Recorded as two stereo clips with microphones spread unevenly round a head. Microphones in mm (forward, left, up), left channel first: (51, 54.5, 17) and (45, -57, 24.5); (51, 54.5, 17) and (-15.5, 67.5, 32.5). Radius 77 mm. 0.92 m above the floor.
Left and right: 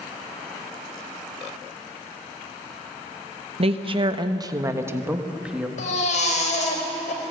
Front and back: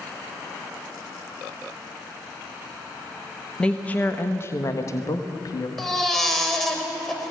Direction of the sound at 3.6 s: 80° right.